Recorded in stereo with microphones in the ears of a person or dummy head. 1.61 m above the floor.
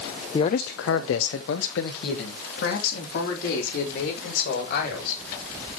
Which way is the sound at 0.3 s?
20° left (ahead or behind).